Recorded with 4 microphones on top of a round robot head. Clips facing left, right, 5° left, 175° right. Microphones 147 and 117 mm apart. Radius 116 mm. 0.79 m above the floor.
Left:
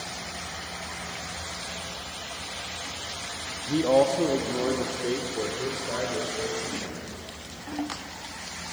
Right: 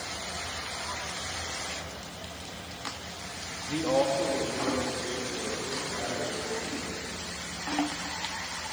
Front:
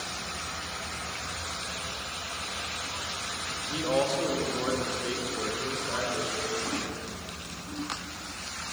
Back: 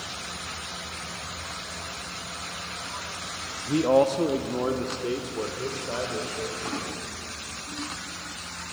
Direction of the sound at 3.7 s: 155° left.